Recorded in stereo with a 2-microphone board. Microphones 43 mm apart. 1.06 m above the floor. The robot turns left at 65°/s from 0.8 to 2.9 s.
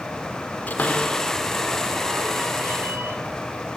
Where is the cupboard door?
45° left (ahead or behind), 4 m; by 3.2 s 80° right, 4 m.